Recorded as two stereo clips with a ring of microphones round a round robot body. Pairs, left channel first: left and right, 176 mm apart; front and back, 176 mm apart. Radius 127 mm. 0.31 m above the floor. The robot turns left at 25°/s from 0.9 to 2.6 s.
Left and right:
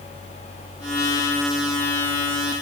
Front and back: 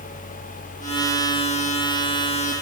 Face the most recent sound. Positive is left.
No sound to turn to.